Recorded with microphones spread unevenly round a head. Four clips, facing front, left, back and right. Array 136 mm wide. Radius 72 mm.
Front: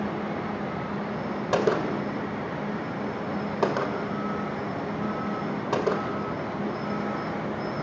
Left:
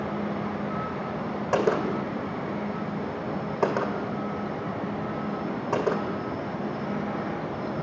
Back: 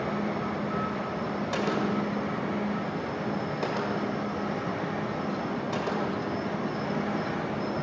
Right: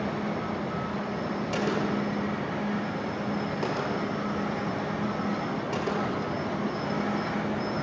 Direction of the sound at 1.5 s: 55° left.